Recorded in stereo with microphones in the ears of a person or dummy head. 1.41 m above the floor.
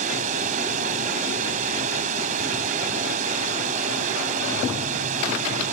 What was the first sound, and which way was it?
Running water, 45° right (ahead or behind).